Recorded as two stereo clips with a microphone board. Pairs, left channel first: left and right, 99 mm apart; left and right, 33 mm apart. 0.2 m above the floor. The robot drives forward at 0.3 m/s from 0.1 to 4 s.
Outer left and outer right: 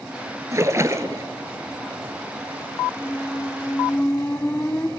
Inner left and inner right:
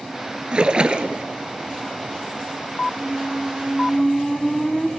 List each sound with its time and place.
0.5 s a splash: 35° right (ahead or behind), 1.9 m; by 1.2 s 30° right (ahead or behind), 2 m
3.0 s a squeak: 20° left (ahead or behind), 1.0 m; by 4.9 s 25° left (ahead or behind), 0.9 m